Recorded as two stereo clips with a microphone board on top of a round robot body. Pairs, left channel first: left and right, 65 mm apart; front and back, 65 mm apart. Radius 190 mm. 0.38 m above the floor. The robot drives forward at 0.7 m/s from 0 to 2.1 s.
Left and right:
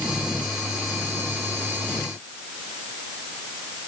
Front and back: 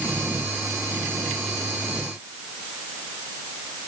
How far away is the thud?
No thud in this recording.